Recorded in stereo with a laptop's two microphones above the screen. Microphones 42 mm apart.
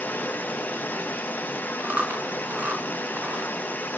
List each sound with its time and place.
0.0 s running water: 45° left (ahead or behind), 5 m
1.8 s chewing: 40° right (ahead or behind), 3.5 m